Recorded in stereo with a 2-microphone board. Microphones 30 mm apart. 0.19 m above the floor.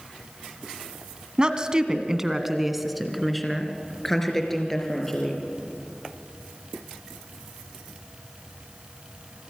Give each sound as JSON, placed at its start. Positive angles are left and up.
{"t": 1.4, "sound": "a woman speaking", "side_deg": -30, "distance_m": 1.6}